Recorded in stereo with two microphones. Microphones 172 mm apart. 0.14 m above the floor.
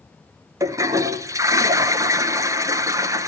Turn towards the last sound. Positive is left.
turn(degrees=-20)  # may be behind; listen again after turning